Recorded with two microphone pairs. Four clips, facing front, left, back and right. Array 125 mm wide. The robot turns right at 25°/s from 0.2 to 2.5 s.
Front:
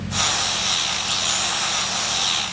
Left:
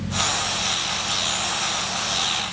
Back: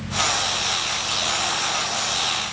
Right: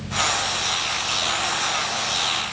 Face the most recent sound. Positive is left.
No sound to turn to.